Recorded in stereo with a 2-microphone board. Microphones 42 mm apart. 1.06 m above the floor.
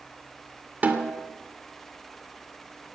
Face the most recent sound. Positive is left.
turn(degrees=-40)  # may be behind; listen again after turning